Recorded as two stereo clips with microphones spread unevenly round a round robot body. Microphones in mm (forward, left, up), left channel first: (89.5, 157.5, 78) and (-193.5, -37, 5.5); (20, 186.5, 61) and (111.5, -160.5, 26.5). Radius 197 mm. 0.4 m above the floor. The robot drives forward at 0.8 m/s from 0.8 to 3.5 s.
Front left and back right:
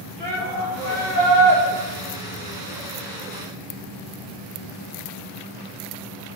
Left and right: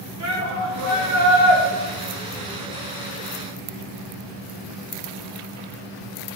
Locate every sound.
0.2 s a shout: 55° right, 2 m; by 1.6 s 80° right, 2.0 m